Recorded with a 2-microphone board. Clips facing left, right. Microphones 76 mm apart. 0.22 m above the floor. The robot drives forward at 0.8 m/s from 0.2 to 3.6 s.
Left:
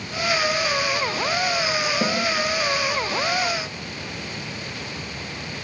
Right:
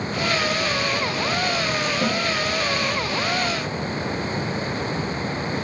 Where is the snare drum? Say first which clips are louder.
Right 1 dB; 20° left (ahead or behind), 6.5 m.